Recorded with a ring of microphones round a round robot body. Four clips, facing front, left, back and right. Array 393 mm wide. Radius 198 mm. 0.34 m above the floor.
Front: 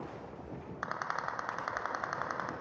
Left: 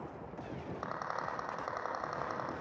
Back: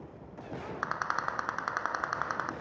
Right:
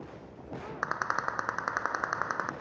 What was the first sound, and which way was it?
A rattle, 100° right.